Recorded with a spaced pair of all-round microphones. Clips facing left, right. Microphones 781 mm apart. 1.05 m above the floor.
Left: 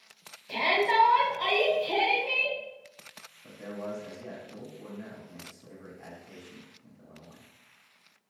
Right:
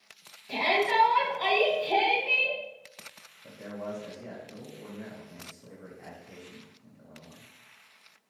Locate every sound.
0.5 s a shout: 10° left (ahead or behind), 0.9 m
3.4 s a man speaking: 5° right (ahead or behind), 0.5 m